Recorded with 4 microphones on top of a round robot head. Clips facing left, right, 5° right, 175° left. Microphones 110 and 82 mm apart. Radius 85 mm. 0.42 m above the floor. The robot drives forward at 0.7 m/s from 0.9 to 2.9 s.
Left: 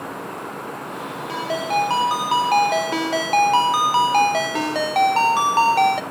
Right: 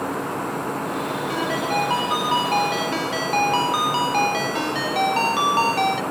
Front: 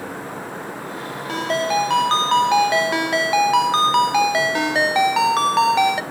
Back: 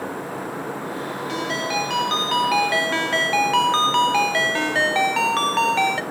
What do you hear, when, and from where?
1.3 s a ringtone: 30° left, 1.9 m; by 6.0 s 65° left, 1.2 m